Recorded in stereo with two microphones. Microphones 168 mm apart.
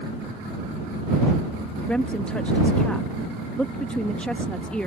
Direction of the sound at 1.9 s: 5° left (ahead or behind).